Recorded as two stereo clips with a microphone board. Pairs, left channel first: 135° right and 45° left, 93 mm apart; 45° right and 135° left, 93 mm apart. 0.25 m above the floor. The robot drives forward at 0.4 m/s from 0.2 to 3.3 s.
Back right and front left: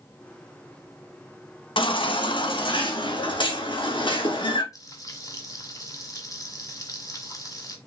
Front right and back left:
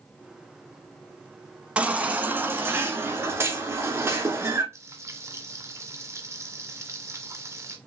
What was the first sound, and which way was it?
A baby crying, 150° right.